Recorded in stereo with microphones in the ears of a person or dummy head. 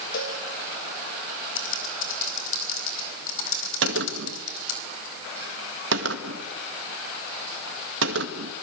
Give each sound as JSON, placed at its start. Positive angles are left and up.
{"t": 0.1, "sound": "a cowbell", "side_deg": 75, "distance_m": 5.5}
{"t": 1.6, "sound": "typing on a keyboard", "side_deg": 80, "distance_m": 4.5}
{"t": 3.8, "sound": "a gunshot", "side_deg": -75, "distance_m": 1.9}